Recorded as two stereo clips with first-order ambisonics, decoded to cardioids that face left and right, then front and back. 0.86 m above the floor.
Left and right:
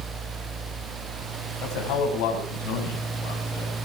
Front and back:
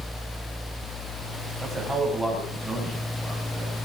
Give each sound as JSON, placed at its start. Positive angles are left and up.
{"t": 1.6, "sound": "a man speaking", "azimuth_deg": 100, "distance_m": 6.0}